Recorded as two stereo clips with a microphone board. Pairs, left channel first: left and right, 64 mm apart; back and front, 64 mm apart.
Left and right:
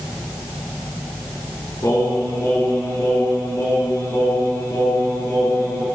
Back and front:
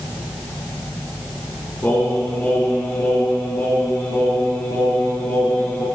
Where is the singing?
120° left, 4 m.